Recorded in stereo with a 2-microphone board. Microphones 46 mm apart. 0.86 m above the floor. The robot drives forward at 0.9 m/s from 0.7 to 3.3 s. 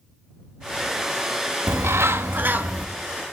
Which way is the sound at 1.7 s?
70° right (ahead or behind).